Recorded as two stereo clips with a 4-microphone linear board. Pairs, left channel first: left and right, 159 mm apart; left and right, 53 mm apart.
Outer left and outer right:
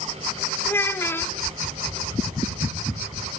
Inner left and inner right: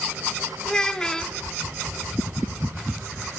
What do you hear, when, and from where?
0.7 s a child speaking: 15° left (ahead or behind), 1.0 m